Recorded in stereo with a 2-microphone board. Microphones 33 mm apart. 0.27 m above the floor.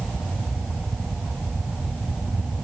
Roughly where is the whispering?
I don't hear whispering.